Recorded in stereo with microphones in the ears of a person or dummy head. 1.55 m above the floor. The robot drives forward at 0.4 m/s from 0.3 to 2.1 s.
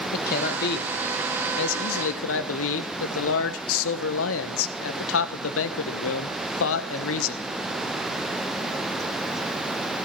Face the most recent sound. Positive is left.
turn(degrees=85)